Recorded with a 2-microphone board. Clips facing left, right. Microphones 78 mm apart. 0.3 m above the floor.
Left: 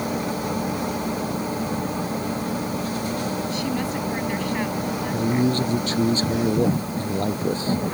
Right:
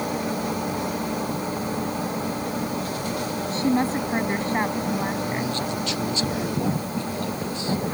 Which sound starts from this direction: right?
A woman speaking, at 3.5 s.